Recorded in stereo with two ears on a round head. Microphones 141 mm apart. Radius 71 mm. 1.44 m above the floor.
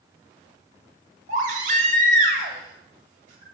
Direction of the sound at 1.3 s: 55° right (ahead or behind).